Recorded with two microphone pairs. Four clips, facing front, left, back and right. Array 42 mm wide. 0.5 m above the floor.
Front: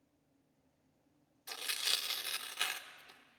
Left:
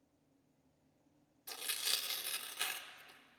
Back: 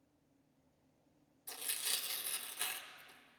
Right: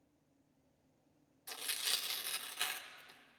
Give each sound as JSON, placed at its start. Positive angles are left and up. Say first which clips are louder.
{"t": 1.5, "sound": "tearing paper", "louder": "even, front 6 dB", "azimuth_deg": 0, "distance_m": 1.1}